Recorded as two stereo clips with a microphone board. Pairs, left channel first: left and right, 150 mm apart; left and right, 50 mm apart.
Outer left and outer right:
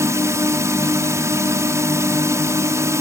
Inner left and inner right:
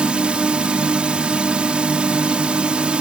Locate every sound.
0.0 s a drone: 20° right (ahead or behind)